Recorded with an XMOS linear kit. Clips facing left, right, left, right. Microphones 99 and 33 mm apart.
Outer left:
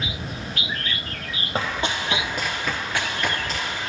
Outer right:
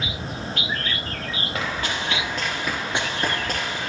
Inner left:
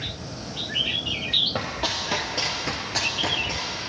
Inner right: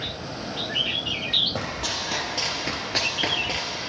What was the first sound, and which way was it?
Running footsteps, 30° left (ahead or behind).